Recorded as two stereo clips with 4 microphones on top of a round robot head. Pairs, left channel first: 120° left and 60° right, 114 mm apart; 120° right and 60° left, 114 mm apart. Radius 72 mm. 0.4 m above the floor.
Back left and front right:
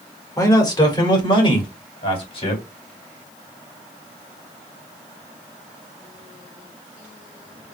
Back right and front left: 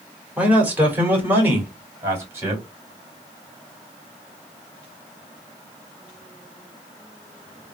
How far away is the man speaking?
About 1.4 m.